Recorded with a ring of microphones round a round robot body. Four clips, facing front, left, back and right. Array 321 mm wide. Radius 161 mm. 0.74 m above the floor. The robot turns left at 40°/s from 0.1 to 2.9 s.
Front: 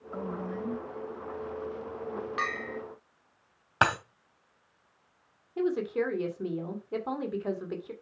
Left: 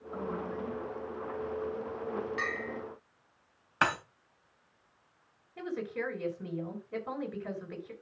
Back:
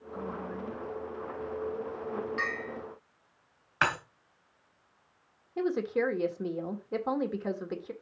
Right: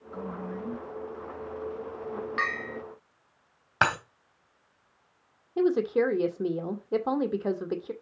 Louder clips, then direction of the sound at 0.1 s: Even, front 2 dB; 20° left.